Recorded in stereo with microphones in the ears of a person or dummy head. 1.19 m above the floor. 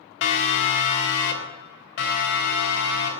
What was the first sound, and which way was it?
A siren, 70° left (ahead or behind).